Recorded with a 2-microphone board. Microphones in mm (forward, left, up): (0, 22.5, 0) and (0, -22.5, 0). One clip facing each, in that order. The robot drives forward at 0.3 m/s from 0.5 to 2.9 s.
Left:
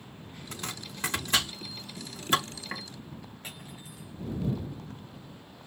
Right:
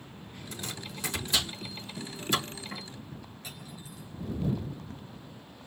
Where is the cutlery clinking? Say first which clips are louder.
Even; 35° left (ahead or behind), 4.5 m.